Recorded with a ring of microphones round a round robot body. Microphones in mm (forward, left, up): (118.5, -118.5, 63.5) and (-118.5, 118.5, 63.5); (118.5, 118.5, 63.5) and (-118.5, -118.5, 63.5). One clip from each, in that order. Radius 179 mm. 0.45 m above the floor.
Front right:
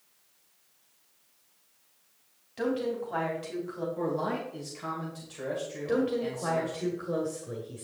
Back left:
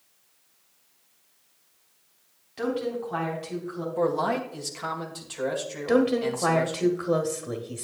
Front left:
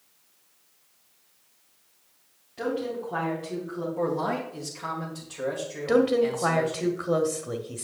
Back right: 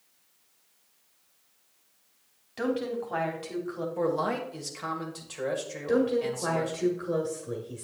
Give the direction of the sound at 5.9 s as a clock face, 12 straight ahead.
8 o'clock.